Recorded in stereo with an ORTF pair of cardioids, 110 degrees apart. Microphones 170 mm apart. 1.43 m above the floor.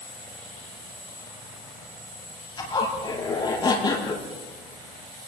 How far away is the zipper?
About 7.5 m.